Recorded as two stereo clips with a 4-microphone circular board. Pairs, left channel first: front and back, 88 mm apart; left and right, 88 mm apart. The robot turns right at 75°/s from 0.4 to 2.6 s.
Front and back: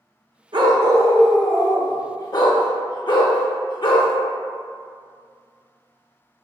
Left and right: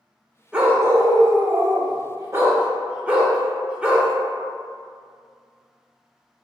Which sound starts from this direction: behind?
A dog barking, at 0.5 s.